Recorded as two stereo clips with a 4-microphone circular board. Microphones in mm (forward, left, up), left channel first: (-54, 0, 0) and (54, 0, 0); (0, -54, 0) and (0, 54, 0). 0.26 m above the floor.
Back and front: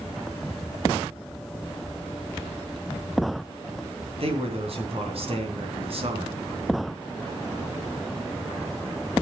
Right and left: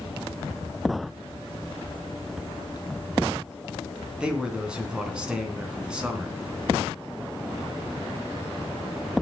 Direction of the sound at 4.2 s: 10° left.